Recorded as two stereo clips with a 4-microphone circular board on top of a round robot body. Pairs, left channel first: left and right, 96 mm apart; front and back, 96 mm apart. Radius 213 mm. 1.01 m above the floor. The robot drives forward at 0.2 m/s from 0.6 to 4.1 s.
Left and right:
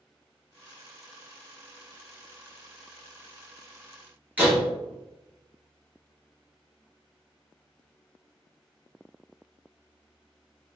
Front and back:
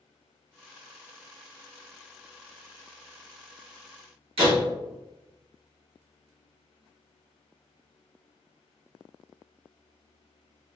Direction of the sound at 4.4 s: 165° right.